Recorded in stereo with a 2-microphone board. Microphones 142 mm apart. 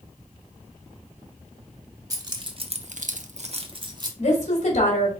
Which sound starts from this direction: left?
A woman speaking, at 4.2 s.